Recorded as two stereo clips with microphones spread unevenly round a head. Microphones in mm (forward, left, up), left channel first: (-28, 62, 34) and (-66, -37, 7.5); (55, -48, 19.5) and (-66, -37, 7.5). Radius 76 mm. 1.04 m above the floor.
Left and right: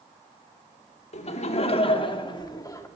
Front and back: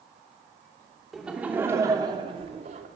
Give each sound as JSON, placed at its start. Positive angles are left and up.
{"t": 1.1, "sound": "laughter", "azimuth_deg": 85, "distance_m": 3.0}